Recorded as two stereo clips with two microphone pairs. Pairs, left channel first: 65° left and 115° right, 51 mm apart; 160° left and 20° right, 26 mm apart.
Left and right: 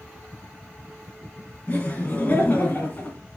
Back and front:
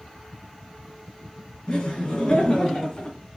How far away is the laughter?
About 2 m.